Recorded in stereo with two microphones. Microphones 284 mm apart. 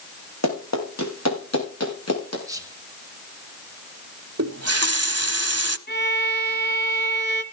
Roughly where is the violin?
Left.